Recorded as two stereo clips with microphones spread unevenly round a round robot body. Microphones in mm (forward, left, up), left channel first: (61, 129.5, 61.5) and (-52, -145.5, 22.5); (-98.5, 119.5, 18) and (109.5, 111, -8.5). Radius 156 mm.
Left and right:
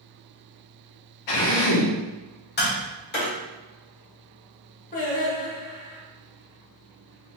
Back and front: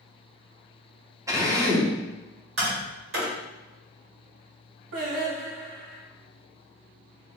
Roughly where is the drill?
Left.